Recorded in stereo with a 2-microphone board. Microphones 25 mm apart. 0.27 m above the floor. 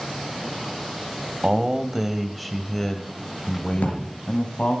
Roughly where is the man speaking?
Right.